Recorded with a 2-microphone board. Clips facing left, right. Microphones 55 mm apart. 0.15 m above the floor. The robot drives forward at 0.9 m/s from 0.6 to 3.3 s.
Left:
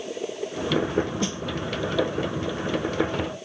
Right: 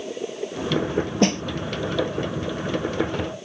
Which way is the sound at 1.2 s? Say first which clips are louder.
Right 8 dB; 65° right (ahead or behind).